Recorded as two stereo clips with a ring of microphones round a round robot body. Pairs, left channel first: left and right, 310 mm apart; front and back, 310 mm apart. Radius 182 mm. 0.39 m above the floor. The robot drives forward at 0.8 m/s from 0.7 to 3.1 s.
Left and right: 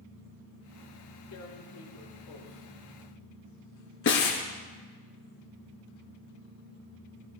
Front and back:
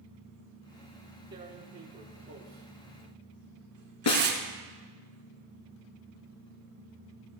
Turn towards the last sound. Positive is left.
turn(degrees=40)